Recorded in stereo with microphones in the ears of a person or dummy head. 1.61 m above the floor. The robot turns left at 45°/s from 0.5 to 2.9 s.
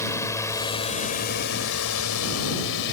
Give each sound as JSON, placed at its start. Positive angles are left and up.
{"t": 0.0, "sound": "a drone", "side_deg": 15}